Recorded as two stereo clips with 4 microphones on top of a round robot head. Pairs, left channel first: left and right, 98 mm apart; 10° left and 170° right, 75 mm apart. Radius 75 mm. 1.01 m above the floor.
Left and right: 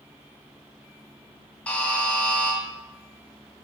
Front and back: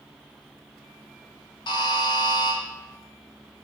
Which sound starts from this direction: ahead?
A buzzer, at 1.7 s.